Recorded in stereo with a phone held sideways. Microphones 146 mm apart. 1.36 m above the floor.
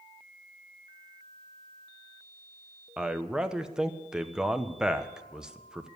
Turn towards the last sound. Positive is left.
turn(degrees=-5)  # may be behind; listen again after turning